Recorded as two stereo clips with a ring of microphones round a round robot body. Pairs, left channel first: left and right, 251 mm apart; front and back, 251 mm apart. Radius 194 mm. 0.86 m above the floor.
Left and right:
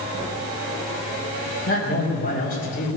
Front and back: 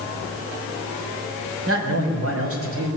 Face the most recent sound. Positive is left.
turn(degrees=150)